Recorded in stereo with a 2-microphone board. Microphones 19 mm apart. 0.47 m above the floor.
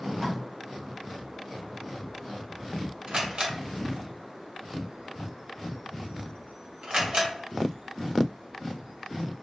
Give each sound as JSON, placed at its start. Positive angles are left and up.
{"t": 0.2, "sound": "tape being pulled", "side_deg": 10, "distance_m": 1.2}
{"t": 3.1, "sound": "a camera shutter", "side_deg": -50, "distance_m": 0.9}